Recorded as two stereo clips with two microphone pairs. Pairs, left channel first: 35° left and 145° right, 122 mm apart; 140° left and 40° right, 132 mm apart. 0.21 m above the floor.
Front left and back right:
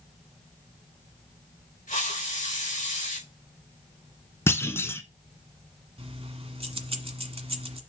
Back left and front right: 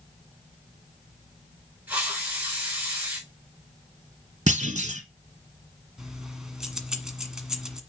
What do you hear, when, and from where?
1.9 s a hiss: 35° left, 4 m
4.5 s a clunk: 30° right, 1.1 m
6.0 s keys jangling: 125° right, 1.5 m